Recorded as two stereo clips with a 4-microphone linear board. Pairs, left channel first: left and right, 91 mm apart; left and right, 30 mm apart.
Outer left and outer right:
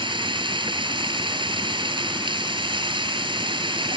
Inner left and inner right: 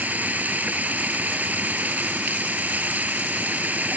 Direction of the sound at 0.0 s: 60° right (ahead or behind).